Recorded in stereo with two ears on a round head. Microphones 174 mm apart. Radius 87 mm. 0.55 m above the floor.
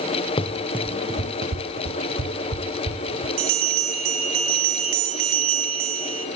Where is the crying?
I don't hear crying.